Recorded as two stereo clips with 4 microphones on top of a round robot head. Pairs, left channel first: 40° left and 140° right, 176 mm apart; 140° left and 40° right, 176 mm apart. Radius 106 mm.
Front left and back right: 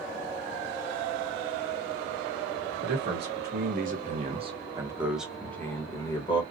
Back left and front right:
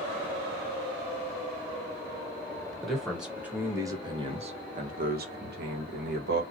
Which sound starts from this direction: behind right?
A man speaking, at 2.8 s.